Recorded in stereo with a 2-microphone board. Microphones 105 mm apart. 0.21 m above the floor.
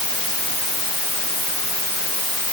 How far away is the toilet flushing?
I don't hear a toilet flushing.